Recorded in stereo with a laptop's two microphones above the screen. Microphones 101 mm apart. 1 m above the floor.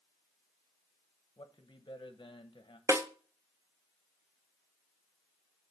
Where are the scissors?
I don't hear scissors.